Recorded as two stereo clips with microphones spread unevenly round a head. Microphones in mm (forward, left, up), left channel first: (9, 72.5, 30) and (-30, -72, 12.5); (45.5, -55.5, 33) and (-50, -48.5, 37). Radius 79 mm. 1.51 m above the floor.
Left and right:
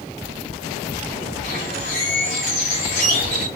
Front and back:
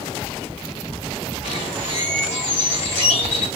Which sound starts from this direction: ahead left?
A bird, at 1.4 s.